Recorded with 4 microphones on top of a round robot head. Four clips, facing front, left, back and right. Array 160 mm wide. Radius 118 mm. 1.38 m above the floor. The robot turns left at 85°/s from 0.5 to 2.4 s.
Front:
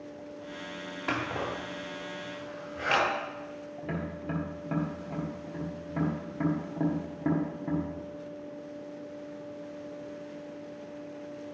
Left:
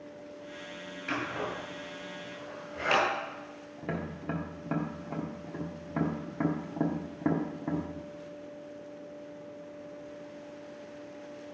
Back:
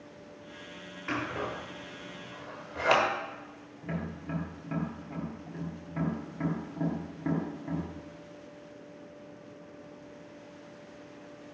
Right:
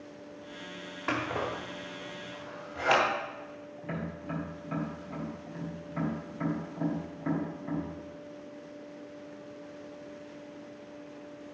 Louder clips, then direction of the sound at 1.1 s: Right 2 dB, front 1 dB; 60° right.